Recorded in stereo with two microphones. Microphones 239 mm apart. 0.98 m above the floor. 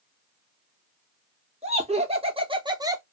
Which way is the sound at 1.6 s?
25° right (ahead or behind).